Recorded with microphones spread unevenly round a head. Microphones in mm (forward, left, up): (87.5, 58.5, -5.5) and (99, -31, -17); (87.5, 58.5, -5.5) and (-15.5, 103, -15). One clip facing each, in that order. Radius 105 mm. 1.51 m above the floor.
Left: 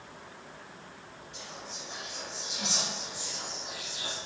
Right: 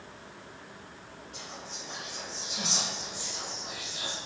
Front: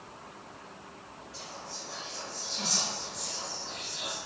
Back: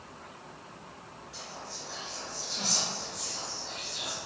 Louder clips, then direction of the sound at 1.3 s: Even, even; 155° right.